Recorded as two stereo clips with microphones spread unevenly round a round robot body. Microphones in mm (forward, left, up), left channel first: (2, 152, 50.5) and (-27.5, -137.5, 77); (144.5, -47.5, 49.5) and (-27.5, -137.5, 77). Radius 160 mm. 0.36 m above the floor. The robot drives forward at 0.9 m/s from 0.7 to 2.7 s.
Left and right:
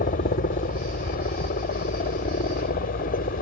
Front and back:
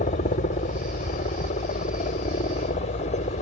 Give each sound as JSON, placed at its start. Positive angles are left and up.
{"t": 0.0, "sound": "a helicopter", "azimuth_deg": 40}